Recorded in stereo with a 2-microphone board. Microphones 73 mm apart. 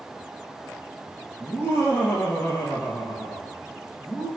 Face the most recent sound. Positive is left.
turn(degrees=25)  # may be behind; listen again after turning